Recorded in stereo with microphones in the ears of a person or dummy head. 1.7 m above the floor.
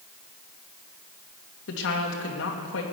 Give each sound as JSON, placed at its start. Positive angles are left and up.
{"t": 1.7, "sound": "a woman speaking", "side_deg": 80, "distance_m": 2.5}